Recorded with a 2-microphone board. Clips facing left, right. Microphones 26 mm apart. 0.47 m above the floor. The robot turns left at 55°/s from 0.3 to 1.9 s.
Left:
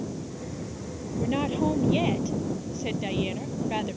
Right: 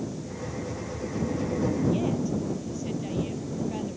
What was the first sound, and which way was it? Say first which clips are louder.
A woman speaking: left 3 dB; 85° left.